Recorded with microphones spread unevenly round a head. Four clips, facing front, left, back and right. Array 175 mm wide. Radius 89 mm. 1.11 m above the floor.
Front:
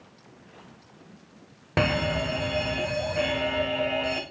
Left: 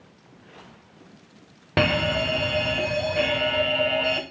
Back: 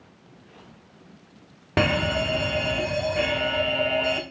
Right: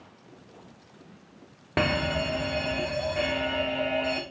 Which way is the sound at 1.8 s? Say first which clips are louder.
Left 4 dB, back 2 dB; 95° left.